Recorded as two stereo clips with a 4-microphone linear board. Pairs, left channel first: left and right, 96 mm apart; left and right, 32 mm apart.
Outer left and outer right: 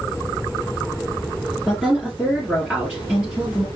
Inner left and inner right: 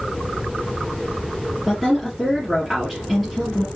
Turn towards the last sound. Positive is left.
turn(degrees=0)  # may be behind; listen again after turning